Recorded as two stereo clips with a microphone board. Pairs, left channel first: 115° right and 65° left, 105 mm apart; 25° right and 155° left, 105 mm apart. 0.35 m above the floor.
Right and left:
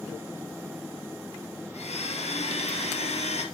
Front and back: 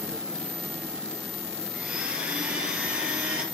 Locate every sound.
1.7 s a blender: 120° right, 2.5 m